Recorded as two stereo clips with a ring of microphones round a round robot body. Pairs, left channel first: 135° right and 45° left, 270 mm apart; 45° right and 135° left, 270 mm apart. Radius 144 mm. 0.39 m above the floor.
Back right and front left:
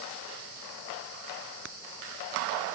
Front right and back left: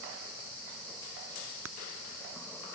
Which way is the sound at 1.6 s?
95° left.